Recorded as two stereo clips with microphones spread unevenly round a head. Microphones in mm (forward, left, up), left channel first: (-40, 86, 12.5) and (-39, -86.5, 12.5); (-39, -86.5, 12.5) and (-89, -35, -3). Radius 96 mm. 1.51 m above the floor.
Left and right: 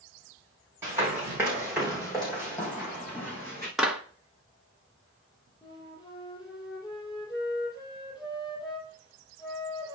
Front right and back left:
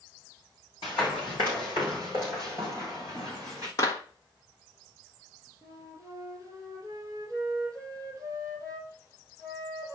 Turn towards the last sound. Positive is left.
turn(degrees=15)